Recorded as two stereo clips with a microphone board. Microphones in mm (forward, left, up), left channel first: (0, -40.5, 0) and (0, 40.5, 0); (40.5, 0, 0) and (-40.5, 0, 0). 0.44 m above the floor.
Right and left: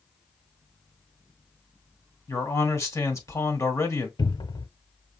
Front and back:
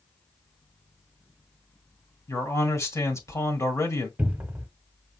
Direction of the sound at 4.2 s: 110° right.